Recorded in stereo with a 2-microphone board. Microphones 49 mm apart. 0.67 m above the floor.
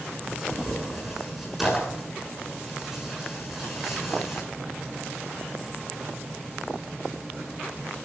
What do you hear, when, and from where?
0.3 s tearing paper: 5° right (ahead or behind), 7 m